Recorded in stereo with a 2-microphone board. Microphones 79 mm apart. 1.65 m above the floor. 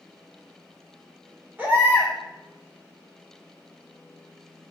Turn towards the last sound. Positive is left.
turn(degrees=-20)  # may be behind; listen again after turning